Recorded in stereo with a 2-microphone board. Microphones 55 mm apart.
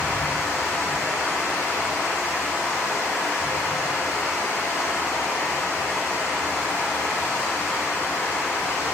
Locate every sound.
0.0 s running water: 75° left (ahead or behind), 1.3 m